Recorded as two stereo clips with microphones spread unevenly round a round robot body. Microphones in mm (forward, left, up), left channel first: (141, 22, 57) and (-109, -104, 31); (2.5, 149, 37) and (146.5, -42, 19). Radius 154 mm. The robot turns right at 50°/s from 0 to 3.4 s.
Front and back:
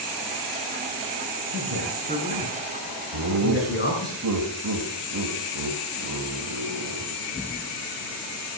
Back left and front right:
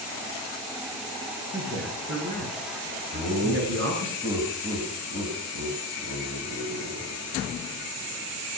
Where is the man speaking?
120° right, 8 m; by 4.1 s 25° right, 8 m.